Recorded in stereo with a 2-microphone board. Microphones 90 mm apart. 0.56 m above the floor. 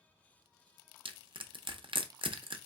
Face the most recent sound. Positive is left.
turn(degrees=-65)  # may be behind; listen again after turning